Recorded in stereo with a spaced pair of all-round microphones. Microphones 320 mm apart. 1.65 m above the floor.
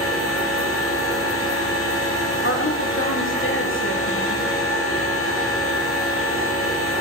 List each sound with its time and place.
0.0 s a machine running: 40° left (ahead or behind), 5.5 m
2.4 s a woman speaking: 40° left (ahead or behind), 1.8 m